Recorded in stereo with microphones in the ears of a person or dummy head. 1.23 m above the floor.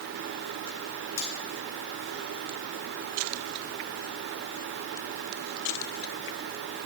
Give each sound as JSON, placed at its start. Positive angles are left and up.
{"t": 1.2, "sound": "cutlery clinking", "side_deg": 75, "distance_m": 3.0}